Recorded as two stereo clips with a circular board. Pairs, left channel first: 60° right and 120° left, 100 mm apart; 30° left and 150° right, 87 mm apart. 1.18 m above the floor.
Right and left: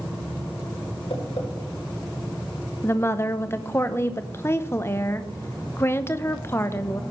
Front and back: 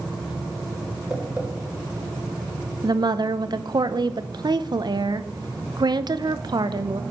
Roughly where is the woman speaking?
Behind right.